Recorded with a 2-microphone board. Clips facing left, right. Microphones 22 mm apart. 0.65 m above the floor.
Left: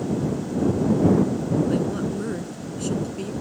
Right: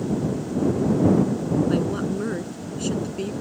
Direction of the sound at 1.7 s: 20° right (ahead or behind).